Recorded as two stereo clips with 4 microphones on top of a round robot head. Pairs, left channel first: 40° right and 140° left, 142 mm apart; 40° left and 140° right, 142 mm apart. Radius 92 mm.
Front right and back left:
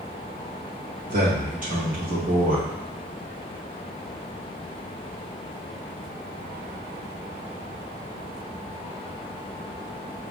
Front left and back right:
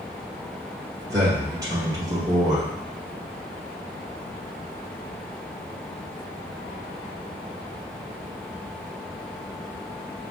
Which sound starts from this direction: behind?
A man speaking, at 1.1 s.